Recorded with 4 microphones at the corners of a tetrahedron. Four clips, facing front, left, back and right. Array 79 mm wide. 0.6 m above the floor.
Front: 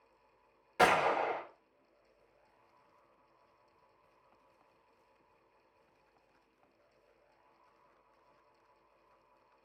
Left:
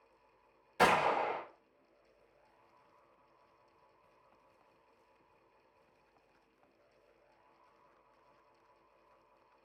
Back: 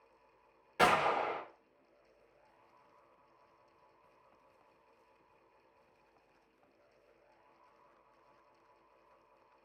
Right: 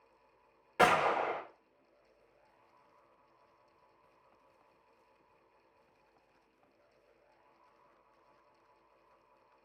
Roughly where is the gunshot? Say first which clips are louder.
Right 1 dB, front 1 dB; right.